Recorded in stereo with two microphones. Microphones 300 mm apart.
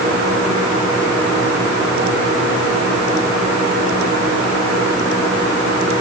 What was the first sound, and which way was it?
Only background noise.